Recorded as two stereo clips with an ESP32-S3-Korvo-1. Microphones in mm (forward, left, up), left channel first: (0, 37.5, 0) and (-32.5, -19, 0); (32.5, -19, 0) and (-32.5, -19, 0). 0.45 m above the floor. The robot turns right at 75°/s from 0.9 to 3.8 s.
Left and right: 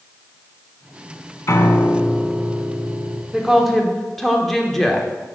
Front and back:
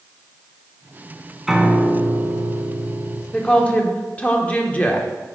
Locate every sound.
1.5 s a piano: 95° left, 0.6 m; by 3.2 s 130° right, 0.6 m
3.3 s a woman speaking: 55° right, 0.7 m; by 5.1 s 20° right, 0.7 m